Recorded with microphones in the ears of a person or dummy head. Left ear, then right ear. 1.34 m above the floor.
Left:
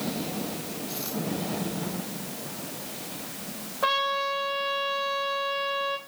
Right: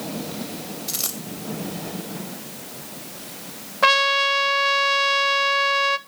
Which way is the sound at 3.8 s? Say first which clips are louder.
Right 8 dB; 60° right (ahead or behind).